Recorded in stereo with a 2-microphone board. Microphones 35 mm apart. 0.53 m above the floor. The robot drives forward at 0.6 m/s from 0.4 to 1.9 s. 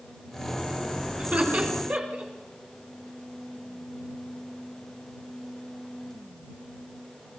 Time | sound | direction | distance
1.2 | laughter | 50° right (ahead or behind) | 6 m